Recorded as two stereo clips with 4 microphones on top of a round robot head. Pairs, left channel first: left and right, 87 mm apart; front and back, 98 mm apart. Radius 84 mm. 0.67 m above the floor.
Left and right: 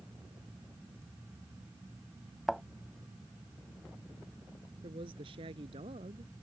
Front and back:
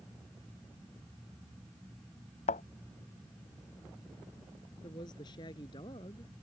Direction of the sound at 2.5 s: Straight ahead.